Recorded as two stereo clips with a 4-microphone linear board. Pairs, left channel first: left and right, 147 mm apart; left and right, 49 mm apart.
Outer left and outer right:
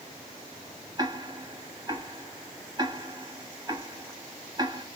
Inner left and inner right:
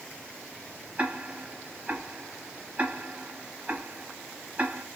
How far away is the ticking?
About 1.2 m.